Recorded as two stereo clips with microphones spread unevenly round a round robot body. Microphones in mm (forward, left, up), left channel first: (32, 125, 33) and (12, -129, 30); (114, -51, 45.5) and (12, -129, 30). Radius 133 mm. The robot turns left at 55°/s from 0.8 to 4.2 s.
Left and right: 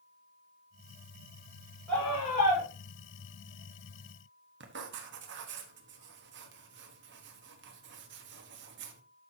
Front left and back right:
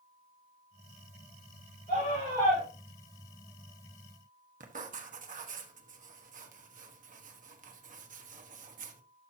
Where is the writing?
145° right, 1.2 m.